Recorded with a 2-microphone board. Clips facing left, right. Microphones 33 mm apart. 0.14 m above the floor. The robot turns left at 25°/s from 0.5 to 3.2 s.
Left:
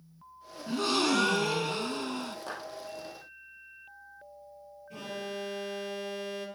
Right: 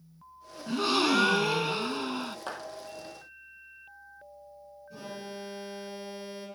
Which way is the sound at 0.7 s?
15° right (ahead or behind).